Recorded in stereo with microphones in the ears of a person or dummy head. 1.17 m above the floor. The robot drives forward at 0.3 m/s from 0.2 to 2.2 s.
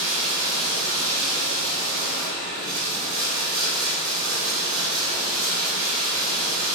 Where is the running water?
80° right, 1.3 m; by 6.8 s 75° right (ahead or behind), 1.3 m.